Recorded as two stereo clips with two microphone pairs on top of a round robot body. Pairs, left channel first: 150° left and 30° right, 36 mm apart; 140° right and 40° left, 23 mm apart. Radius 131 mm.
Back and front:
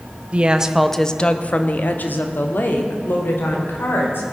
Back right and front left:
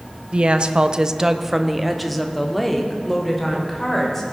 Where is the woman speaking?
20° left, 0.8 m; by 4.2 s 140° left, 3 m.